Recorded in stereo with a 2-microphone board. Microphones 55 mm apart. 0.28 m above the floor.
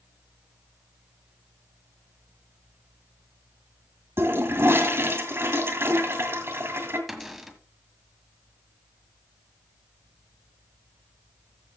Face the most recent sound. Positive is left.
turn(degrees=-5)  # may be behind; listen again after turning